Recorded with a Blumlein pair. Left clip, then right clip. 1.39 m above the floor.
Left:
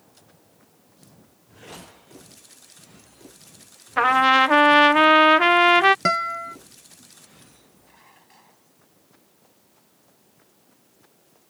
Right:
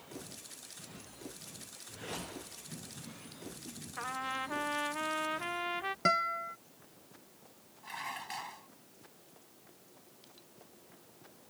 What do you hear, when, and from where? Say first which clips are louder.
4.0 s a trumpet: left 22 dB; 40° left
6.0 s a guitar: left 8 dB; 70° left
7.8 s dishes clattering: right 15 dB; 35° right